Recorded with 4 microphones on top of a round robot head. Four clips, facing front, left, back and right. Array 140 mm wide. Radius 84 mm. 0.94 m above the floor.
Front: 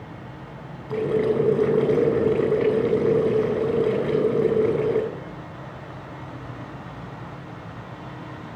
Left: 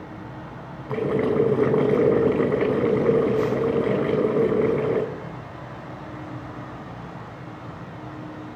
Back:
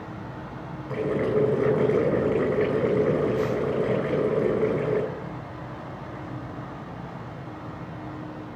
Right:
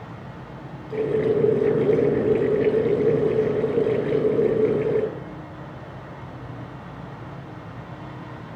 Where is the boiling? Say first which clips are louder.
Right 1 dB, front 3 dB; 75° left, 9 m.